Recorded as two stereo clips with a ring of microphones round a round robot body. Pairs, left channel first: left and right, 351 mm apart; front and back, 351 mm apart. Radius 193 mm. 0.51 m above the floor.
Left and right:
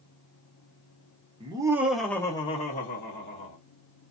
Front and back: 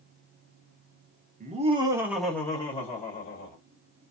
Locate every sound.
1.4 s laughter: 145° right, 1.0 m; by 3.6 s 50° left, 1.2 m